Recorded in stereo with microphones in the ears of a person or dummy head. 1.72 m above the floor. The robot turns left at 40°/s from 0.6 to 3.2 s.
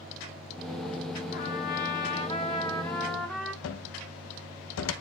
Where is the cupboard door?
90° left, 0.6 m.